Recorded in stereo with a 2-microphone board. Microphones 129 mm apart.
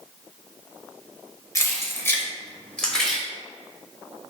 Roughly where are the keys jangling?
Left.